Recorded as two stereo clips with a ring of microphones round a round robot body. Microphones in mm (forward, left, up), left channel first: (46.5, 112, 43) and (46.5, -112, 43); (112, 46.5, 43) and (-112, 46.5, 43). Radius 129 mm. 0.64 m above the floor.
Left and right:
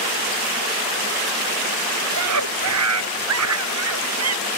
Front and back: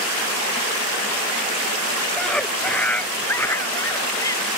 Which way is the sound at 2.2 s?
85° right.